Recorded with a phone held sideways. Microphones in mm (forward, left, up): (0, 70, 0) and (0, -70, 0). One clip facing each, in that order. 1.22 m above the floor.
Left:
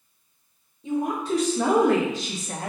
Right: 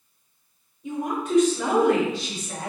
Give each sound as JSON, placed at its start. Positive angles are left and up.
{"t": 0.8, "sound": "a woman speaking", "side_deg": 30, "distance_m": 2.0}